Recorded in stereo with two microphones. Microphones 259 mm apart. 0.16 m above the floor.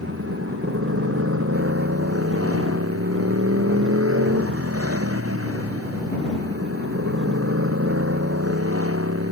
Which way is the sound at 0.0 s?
60° right (ahead or behind).